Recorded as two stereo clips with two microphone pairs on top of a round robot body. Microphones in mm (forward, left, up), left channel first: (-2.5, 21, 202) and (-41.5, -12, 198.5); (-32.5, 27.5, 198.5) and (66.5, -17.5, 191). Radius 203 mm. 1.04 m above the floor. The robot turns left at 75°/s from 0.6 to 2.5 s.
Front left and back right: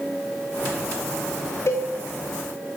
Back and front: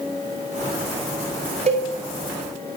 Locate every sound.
1.7 s a cowbell: straight ahead, 0.9 m; by 1.9 s 15° right, 0.9 m